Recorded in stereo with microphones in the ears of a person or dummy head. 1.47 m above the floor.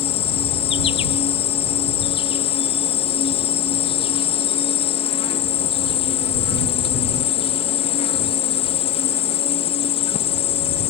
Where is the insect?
25° left (ahead or behind).